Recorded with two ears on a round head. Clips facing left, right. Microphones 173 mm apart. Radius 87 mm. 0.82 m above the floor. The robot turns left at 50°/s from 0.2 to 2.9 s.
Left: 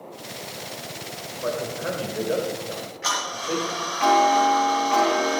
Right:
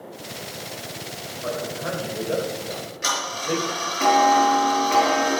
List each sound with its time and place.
1.4 s a man speaking: 55° left (ahead or behind), 2.5 m; by 3.7 s 20° right (ahead or behind), 2.5 m
2.7 s ticking: 40° right (ahead or behind), 5.5 m; by 5.4 s 50° right (ahead or behind), 5.5 m